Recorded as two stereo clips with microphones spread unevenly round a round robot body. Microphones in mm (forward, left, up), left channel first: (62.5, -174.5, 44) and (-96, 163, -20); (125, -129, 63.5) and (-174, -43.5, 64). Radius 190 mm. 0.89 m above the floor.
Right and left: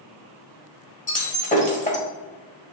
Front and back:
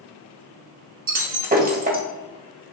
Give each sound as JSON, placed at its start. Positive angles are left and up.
{"t": 1.1, "sound": "breaking glass", "azimuth_deg": -135, "distance_m": 1.6}